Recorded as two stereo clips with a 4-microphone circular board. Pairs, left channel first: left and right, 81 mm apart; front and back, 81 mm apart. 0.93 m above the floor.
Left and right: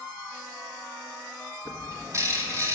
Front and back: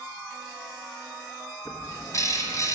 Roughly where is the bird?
Ahead right.